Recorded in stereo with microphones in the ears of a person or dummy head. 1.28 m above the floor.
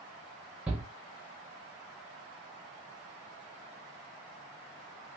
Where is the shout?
10° right (ahead or behind), 0.5 m.